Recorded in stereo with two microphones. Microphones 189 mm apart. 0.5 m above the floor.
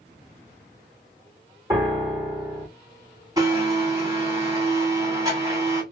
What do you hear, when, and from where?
1.7 s a piano: 15° right (ahead or behind), 1.5 m
3.4 s a blender: 20° right (ahead or behind), 1.9 m